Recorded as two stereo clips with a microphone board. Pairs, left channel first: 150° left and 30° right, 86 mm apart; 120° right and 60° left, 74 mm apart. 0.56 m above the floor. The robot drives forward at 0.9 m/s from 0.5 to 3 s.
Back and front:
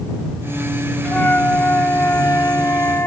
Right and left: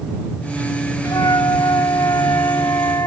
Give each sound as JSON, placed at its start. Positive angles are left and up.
{"t": 1.1, "sound": "a flute", "azimuth_deg": -140}